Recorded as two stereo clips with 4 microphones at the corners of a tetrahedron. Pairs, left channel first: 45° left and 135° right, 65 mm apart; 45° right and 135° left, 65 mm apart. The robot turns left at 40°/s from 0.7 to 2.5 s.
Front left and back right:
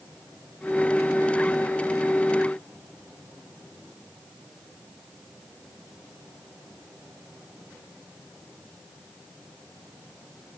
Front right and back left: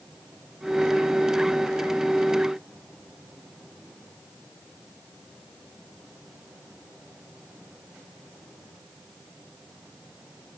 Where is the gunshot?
I don't hear a gunshot.